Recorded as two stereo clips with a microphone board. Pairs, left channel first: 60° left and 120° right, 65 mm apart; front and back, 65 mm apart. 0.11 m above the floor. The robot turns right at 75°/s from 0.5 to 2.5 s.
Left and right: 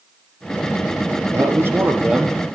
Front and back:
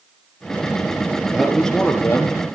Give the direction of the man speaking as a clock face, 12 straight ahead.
4 o'clock.